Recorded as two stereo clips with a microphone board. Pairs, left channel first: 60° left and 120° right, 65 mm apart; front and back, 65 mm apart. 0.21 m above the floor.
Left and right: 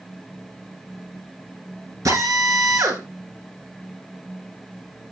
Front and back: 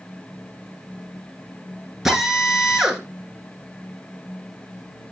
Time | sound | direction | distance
2.0 | a drill | 95° right | 2 m